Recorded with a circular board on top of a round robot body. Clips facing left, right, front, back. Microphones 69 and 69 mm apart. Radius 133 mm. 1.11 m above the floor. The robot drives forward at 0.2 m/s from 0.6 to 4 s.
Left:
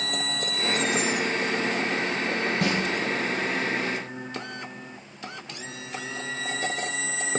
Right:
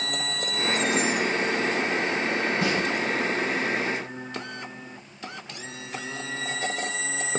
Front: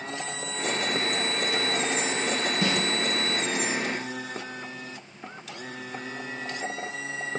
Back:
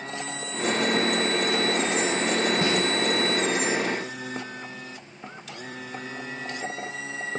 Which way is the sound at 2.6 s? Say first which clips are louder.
Left 1 dB, back 2 dB; 125° left.